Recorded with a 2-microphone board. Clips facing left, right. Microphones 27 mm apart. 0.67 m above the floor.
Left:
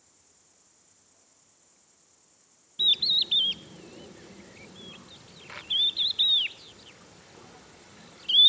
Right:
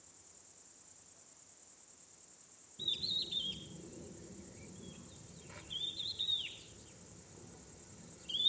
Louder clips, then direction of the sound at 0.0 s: Even; 30° left (ahead or behind).